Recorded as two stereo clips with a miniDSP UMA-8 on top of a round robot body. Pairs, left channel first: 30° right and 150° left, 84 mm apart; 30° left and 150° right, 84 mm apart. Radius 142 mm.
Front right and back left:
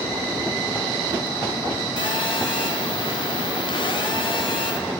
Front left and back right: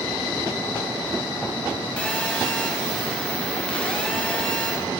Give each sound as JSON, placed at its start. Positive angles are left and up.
{"t": 2.0, "sound": "a phone buzzing", "azimuth_deg": -50, "distance_m": 1.6}